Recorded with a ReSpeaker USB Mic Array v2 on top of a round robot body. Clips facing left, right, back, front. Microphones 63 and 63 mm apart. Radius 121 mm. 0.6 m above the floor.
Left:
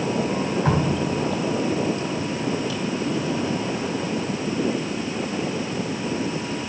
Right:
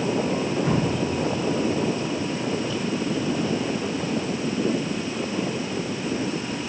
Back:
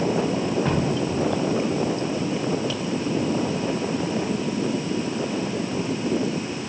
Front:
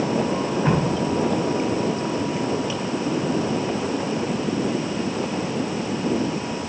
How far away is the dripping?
About 2 m.